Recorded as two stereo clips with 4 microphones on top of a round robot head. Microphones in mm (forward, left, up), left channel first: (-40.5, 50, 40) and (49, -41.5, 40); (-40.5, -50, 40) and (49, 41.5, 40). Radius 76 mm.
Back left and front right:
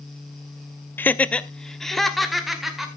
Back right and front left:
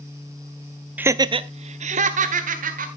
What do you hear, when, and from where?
1.0 s laughter: 95° left, 0.6 m; by 2.9 s 45° left, 1.8 m